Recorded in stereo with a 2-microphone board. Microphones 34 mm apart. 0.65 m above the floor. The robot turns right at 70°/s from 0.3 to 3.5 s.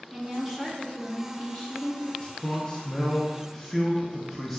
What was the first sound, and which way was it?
A woman speaking, 15° right.